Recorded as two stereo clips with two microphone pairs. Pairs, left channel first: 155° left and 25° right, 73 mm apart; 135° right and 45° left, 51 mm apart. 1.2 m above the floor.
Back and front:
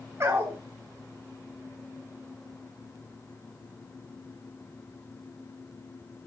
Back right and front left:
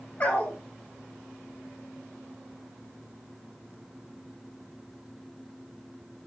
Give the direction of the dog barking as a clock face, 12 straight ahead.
3 o'clock.